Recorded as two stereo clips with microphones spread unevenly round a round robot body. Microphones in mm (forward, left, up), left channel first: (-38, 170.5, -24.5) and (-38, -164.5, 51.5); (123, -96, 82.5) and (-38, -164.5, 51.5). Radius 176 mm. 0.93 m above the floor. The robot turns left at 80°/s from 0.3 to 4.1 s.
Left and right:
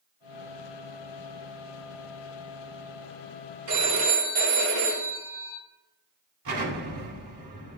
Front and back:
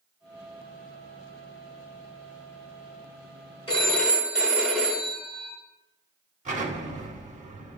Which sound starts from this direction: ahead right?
A phone ringing, at 3.7 s.